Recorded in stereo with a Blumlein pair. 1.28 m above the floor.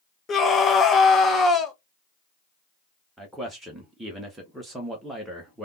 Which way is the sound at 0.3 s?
15° left.